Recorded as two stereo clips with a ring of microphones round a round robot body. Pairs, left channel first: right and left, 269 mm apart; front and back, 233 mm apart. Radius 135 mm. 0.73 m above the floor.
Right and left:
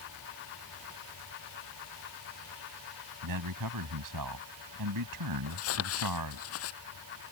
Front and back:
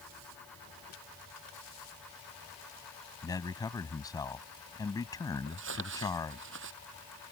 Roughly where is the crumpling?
Behind right.